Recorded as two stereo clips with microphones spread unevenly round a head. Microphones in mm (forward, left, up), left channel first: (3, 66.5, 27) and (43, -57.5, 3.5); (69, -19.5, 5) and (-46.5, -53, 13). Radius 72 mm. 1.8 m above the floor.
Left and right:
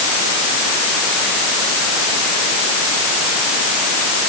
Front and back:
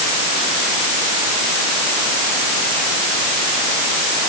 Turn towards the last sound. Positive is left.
No sound to turn to.